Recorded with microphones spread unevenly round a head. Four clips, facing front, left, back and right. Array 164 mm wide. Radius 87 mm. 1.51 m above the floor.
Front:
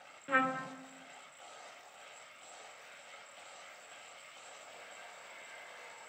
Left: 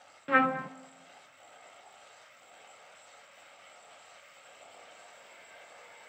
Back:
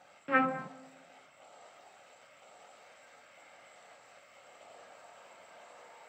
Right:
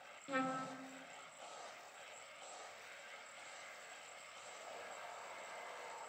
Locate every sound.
0.3 s a trumpet: 105° left, 0.6 m